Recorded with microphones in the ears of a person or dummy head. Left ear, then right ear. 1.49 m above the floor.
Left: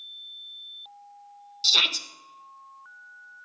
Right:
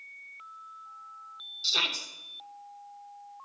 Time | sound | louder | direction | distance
1.6 | a shout | left 7 dB | 25° left (ahead or behind) | 1.4 m